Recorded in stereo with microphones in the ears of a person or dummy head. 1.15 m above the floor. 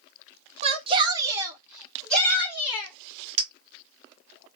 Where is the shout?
35° right (ahead or behind), 0.8 m; by 2.9 s 15° left (ahead or behind), 1.0 m.